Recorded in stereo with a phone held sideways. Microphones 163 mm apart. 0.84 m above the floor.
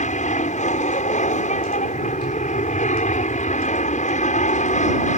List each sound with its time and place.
0.0 s an aircraft: 50° left (ahead or behind)